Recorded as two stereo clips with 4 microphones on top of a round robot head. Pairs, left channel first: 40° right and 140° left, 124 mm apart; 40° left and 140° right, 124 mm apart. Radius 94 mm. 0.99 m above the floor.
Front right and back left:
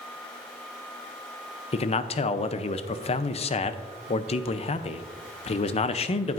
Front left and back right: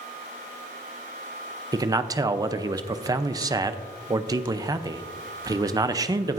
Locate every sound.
1.7 s a man speaking: 80° right, 0.6 m